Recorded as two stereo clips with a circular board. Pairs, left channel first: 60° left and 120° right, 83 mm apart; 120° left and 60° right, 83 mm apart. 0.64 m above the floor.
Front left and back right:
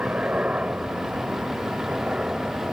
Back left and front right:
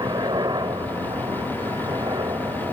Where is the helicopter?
45° right; by 2.7 s 40° right.